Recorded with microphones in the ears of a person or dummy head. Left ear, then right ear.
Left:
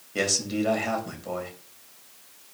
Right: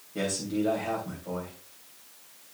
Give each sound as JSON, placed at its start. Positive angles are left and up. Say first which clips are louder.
{"t": 0.1, "sound": "a man speaking", "louder": "left 5 dB", "side_deg": 80, "distance_m": 3.0}